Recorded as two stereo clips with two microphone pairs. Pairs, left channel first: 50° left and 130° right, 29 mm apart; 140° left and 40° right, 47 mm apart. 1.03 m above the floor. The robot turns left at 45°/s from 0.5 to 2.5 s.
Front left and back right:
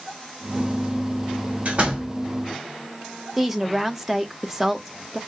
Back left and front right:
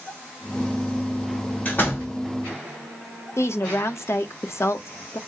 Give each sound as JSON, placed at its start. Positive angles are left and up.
{"t": 1.6, "sound": "a door slam", "azimuth_deg": -165, "distance_m": 2.5}
{"t": 3.4, "sound": "a woman speaking", "azimuth_deg": 150, "distance_m": 0.9}